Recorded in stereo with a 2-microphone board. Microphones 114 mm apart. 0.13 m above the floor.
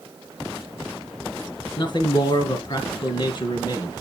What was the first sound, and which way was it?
A man speaking, 45° left (ahead or behind).